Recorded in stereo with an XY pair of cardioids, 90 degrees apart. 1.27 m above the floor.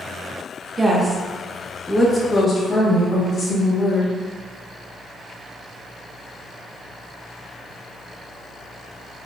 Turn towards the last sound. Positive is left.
turn(degrees=65)